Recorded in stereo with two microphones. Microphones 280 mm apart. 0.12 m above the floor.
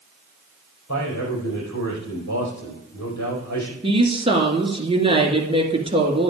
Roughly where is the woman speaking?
Centre.